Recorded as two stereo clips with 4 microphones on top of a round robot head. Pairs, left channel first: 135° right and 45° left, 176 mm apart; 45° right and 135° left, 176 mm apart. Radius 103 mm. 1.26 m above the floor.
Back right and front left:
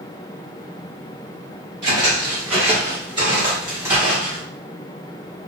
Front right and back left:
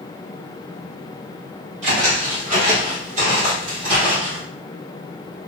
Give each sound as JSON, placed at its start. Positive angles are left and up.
{"t": 1.8, "sound": "footsteps", "azimuth_deg": 85, "distance_m": 1.9}